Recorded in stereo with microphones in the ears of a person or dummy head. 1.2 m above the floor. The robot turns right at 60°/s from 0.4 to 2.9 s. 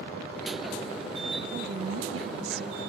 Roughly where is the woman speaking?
Behind right.